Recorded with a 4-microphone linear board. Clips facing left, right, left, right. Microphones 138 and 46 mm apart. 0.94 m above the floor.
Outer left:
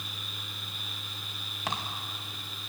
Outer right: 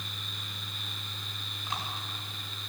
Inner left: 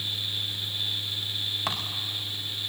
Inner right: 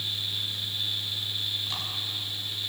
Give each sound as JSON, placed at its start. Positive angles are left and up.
{"t": 1.7, "sound": "footsteps", "side_deg": 75, "distance_m": 4.5}